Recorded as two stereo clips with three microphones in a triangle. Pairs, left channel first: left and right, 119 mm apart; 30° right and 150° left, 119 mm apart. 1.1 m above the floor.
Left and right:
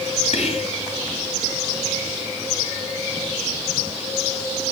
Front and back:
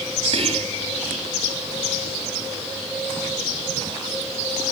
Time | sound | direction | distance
0.3 | whispering | 115° left | 2.5 m